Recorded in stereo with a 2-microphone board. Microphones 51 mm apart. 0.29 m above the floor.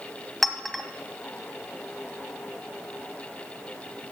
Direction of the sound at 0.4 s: Centre (ahead or behind).